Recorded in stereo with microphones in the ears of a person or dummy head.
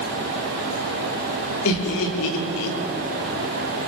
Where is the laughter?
75° left (ahead or behind), 3.5 m.